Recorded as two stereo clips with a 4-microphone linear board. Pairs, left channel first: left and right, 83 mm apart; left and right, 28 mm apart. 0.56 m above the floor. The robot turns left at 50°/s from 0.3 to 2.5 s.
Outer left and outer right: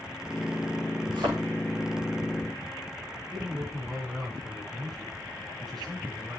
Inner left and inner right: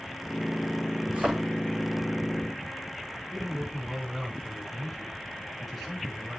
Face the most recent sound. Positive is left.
turn(degrees=0)  # may be behind; listen again after turning